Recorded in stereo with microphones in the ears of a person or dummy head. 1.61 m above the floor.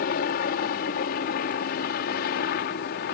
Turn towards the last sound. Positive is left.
turn(degrees=55)  # may be behind; listen again after turning